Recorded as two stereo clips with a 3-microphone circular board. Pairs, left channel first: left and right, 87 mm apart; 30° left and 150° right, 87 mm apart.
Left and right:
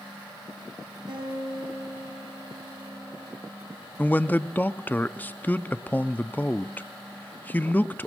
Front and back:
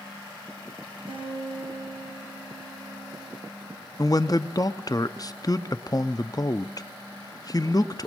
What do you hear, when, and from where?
1.1 s a guitar: 130° right, 8.5 m
4.0 s a man speaking: 30° left, 0.6 m